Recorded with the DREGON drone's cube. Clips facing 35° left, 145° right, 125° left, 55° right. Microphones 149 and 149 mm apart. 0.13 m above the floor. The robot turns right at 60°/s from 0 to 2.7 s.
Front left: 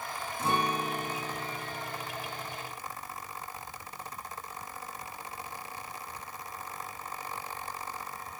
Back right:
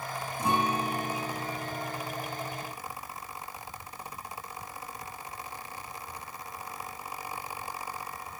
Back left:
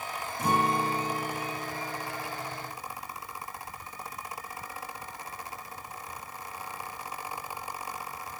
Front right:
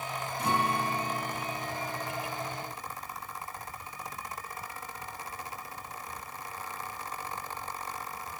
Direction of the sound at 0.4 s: 140° left.